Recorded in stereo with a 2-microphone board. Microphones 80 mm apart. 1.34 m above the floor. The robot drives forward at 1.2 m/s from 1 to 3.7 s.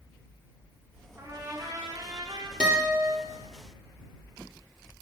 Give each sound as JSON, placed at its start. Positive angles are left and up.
{"t": 1.2, "sound": "a trumpet", "side_deg": -30, "distance_m": 2.5}
{"t": 2.6, "sound": "a guitar", "side_deg": -10, "distance_m": 2.5}